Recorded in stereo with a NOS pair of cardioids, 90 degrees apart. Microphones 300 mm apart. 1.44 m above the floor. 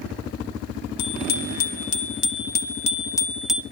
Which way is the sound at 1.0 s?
65° left.